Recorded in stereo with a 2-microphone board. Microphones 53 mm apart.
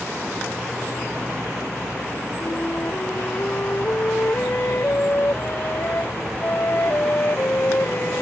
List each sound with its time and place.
2.4 s a flute: 45° left (ahead or behind)